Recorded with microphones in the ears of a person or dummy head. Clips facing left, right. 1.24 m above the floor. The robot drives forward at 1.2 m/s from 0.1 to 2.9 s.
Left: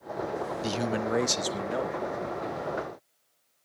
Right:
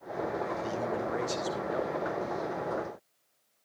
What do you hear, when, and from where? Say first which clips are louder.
0.6 s a man speaking: left 3 dB; 75° left (ahead or behind), 0.9 m; by 2.0 s 30° left (ahead or behind), 1.7 m